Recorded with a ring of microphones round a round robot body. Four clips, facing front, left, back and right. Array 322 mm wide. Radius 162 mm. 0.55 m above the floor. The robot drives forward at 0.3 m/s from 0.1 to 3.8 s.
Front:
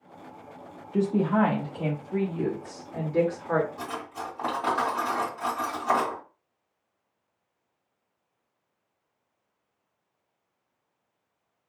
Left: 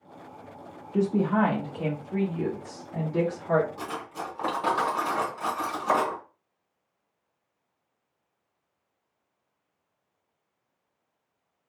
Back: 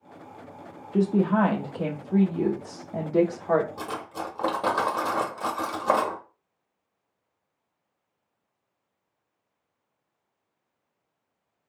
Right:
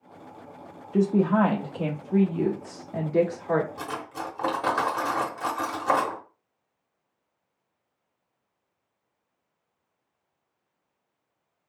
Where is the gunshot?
I don't hear a gunshot.